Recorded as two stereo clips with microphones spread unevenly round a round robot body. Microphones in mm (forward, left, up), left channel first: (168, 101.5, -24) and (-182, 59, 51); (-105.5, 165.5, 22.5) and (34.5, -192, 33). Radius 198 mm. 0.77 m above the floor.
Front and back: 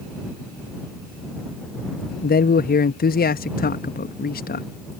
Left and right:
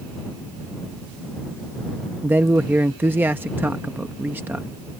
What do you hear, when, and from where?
2.2 s a man speaking: 15° left